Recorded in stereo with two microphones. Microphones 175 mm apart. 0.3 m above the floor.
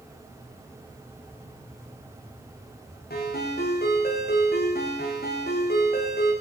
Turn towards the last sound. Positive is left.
turn(degrees=65)  # may be behind; listen again after turning